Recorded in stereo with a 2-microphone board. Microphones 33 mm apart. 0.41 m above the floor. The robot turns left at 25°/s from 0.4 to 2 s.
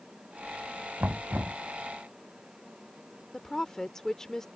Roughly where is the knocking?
Right.